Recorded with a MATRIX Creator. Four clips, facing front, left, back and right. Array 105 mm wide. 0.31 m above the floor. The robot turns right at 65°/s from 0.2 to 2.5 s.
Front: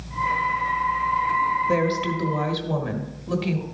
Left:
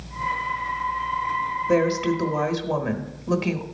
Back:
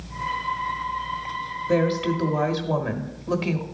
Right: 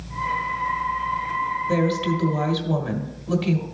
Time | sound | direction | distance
1.7 | a woman speaking | 60° left | 1.2 m